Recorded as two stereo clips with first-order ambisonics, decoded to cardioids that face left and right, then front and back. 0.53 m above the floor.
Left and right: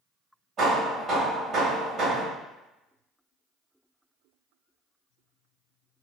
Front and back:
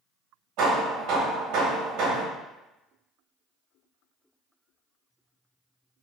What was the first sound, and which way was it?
Hammering, 160° right.